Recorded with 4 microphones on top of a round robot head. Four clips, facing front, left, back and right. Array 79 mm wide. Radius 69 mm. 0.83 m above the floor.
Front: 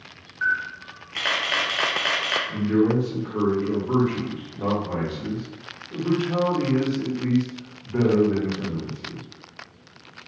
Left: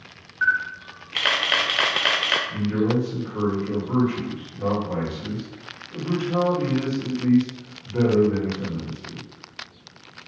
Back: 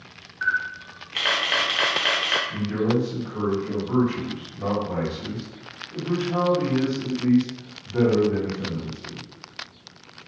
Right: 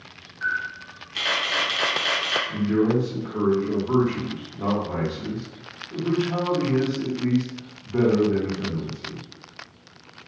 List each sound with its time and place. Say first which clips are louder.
0.4 s a camera shutter: left 5 dB, even; 85° left, 0.6 m
2.5 s a man speaking: right 4 dB, front 6 dB; 35° right, 1.4 m